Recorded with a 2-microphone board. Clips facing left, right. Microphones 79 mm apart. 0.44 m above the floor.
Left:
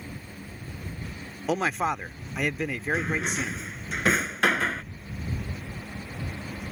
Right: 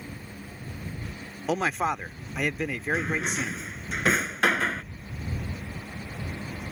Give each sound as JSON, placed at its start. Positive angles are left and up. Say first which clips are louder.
{"t": 1.5, "sound": "a man speaking", "louder": "even", "side_deg": 0}
{"t": 2.9, "sound": "a drawer", "louder": "even", "side_deg": -5}